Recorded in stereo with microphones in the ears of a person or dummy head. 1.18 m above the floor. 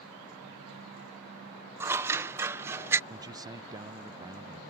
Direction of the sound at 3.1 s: 20° right (ahead or behind).